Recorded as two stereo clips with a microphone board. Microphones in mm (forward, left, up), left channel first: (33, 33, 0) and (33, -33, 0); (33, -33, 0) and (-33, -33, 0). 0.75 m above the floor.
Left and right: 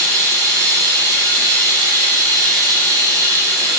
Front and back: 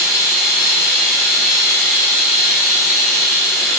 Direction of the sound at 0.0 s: 100° right.